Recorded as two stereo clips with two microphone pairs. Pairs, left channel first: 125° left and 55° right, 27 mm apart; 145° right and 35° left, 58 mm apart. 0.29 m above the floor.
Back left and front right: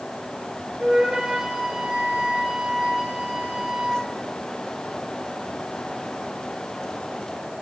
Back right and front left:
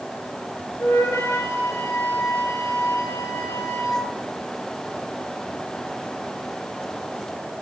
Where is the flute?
105° right, 2 m.